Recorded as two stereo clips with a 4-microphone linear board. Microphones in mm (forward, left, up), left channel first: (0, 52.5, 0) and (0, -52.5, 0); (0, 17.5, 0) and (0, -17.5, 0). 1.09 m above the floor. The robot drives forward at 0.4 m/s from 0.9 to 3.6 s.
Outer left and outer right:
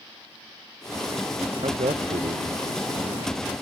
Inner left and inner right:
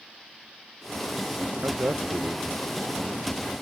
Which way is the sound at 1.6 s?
60° right (ahead or behind).